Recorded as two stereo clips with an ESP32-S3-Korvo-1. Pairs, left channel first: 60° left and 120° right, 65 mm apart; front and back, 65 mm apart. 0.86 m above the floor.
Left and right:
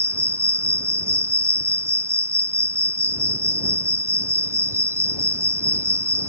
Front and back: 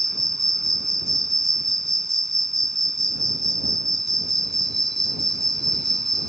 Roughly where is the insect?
Right.